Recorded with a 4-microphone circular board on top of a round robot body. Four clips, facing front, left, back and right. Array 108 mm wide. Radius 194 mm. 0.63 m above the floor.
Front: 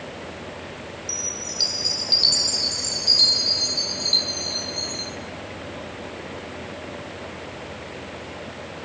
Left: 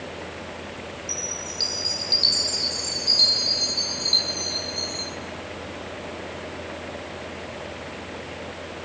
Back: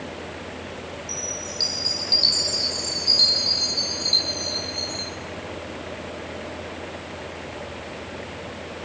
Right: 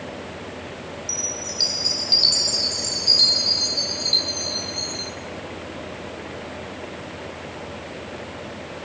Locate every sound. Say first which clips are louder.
1.1 s a chime: right 2 dB, back 1 dB; 50° right, 3.5 m